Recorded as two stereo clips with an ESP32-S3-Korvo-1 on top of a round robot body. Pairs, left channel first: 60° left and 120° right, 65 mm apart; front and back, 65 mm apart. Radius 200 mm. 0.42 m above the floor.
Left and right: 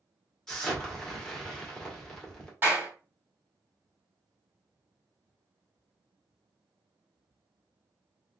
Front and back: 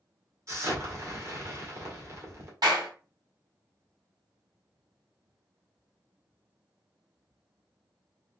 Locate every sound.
0.5 s an explosion: 140° left, 2 m
2.6 s a clap: straight behind, 2.5 m